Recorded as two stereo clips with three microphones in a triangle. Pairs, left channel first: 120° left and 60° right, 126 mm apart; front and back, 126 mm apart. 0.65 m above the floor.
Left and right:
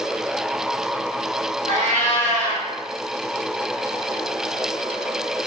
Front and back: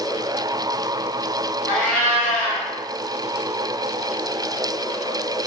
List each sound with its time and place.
1.7 s a cat meowing: 80° right, 1.7 m